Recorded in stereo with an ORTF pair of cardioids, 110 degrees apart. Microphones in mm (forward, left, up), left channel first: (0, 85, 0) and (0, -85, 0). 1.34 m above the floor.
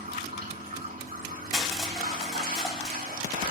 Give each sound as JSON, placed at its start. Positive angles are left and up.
{"t": 0.0, "sound": "running water", "azimuth_deg": -60, "distance_m": 3.5}
{"t": 1.5, "sound": "crushing", "azimuth_deg": 0, "distance_m": 3.0}